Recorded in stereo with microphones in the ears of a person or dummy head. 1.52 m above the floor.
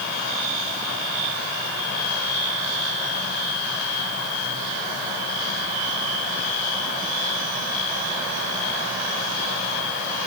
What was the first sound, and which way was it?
Only background noise.